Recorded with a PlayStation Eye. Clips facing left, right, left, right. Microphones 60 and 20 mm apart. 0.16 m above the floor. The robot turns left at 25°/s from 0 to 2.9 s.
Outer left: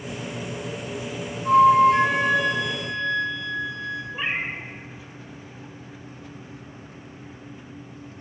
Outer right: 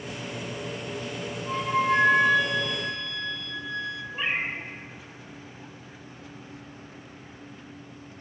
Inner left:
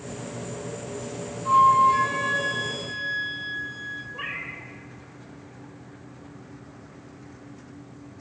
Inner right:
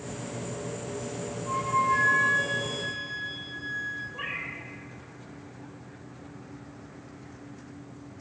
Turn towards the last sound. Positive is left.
turn(degrees=15)  # may be behind; listen again after turning